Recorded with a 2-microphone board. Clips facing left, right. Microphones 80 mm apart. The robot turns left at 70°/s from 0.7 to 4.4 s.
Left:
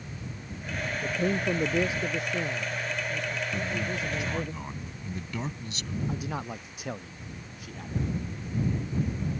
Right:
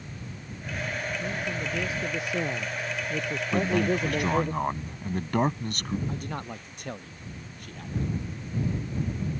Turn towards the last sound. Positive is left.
turn(degrees=5)  # may be behind; listen again after turning